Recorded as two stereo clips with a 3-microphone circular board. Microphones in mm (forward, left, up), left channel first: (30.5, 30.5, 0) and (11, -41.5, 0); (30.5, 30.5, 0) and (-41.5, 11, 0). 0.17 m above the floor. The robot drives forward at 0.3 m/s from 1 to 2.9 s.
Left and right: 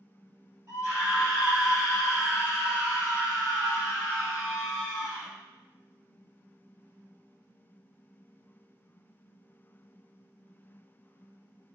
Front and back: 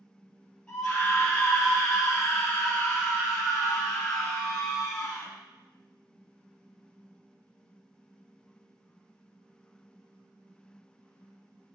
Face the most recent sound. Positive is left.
turn(degrees=-50)